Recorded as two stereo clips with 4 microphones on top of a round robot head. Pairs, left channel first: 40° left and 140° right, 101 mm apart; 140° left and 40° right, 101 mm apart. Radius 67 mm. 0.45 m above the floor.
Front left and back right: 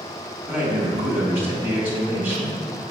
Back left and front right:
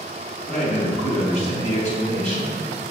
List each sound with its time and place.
0.5 s a man speaking: 145° left, 3.5 m